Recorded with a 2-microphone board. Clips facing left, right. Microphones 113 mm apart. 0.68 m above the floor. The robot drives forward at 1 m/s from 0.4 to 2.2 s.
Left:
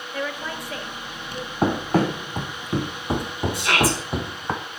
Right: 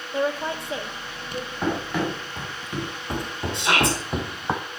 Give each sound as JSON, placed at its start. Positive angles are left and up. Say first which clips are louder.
{"t": 0.1, "sound": "a woman speaking", "louder": "right 5 dB", "side_deg": -25, "distance_m": 0.9}
{"t": 1.6, "sound": "running footsteps", "louder": "left 5 dB", "side_deg": 40, "distance_m": 2.0}
{"t": 3.5, "sound": "a shout", "louder": "even", "side_deg": -25, "distance_m": 4.0}